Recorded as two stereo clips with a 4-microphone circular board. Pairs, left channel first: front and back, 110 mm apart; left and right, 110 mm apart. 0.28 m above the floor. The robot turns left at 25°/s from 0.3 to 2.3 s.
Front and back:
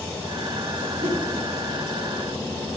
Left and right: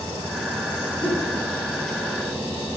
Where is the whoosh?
105° left, 3 m; by 1.2 s 100° left, 3 m.